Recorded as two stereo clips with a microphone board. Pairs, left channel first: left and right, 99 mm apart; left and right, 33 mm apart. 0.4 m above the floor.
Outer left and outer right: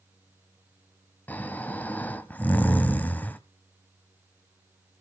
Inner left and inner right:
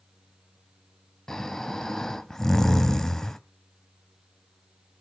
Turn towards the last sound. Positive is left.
turn(degrees=20)  # may be behind; listen again after turning